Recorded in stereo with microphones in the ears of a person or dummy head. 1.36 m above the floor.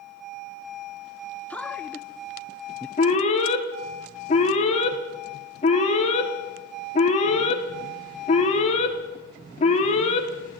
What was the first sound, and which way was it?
A man speaking, 10° left (ahead or behind).